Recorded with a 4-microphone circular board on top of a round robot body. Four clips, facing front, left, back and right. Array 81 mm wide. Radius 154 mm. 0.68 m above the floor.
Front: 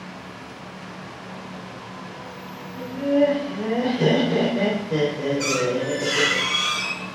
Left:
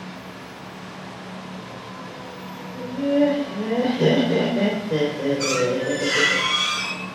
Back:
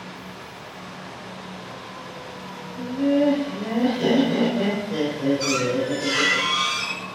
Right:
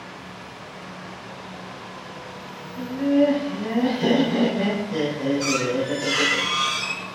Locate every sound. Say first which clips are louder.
2.8 s laughter: right 1 dB, front 1 dB; 60° left, 3.5 m
5.4 s a squeak: left 1 dB, even; 75° left, 4 m